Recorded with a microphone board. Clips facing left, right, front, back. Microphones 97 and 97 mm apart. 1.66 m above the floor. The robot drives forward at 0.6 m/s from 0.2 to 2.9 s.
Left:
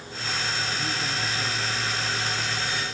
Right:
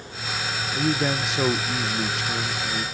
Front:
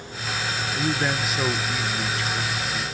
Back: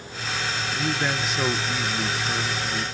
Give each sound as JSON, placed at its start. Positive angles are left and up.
{"t": 0.7, "sound": "a man speaking", "azimuth_deg": -75}